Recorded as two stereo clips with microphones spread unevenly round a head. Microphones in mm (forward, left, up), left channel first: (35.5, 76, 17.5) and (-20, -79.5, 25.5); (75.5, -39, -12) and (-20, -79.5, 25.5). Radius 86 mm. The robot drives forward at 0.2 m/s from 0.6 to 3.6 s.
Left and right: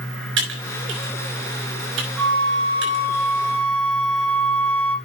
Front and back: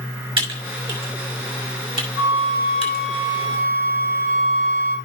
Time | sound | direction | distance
0.4 | typing on a keyboard | 125° right | 5.5 m
2.2 | a flute | 170° right | 3 m